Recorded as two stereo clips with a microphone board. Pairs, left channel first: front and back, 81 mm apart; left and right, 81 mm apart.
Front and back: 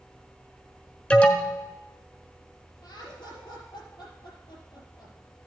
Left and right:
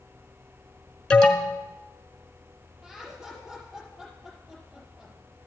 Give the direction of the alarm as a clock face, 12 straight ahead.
11 o'clock.